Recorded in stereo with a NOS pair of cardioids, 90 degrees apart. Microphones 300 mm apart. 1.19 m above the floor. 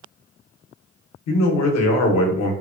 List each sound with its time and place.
1.3 s a man speaking: 65° left, 0.9 m